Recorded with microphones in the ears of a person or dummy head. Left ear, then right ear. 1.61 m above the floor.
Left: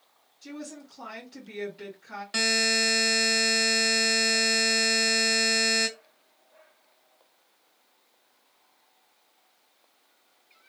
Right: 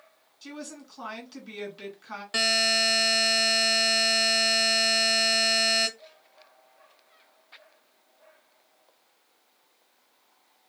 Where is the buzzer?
10° right (ahead or behind), 0.5 m.